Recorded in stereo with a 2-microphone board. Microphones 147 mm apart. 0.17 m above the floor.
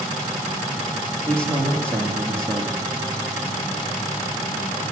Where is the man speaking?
5° left (ahead or behind), 7.5 m.